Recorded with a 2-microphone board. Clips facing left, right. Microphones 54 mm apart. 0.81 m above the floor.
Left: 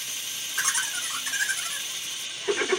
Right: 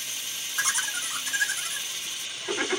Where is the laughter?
65° left (ahead or behind), 2.5 m.